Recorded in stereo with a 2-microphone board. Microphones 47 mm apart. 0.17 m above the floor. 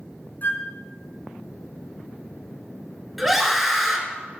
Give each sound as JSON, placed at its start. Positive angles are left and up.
{"t": 0.4, "sound": "a flute", "side_deg": 45, "distance_m": 1.0}
{"t": 3.2, "sound": "a scream", "side_deg": -5, "distance_m": 2.0}